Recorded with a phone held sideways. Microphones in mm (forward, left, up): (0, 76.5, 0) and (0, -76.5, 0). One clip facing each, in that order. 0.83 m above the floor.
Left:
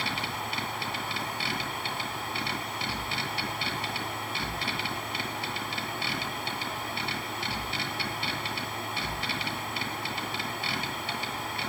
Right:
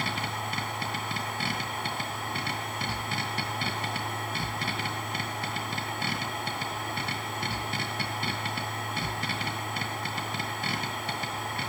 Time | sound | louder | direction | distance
0.0 | a machine running | right 1 dB | 50° right (ahead or behind) | 7.5 m